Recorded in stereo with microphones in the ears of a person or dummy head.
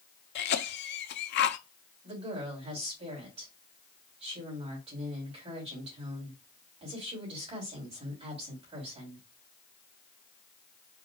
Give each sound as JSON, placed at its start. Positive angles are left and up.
{"t": 0.3, "sound": "a cough", "side_deg": 55, "distance_m": 0.7}
{"t": 2.0, "sound": "a woman speaking", "side_deg": -30, "distance_m": 3.0}